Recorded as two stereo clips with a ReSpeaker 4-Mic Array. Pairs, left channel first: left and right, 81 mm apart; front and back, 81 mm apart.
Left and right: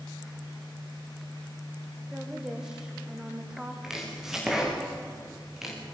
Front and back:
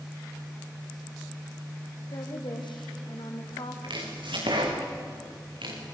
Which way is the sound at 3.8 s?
175° right.